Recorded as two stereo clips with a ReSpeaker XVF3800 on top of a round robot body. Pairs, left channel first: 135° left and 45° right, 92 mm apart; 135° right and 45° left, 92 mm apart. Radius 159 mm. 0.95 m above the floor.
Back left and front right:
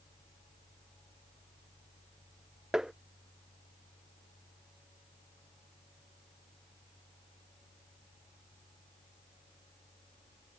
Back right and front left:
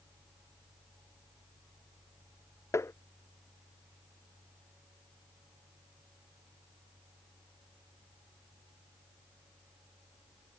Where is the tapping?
120° right.